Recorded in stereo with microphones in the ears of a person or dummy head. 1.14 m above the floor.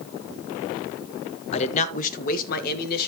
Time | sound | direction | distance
1.5 | a man speaking | 35° left (ahead or behind) | 1.2 m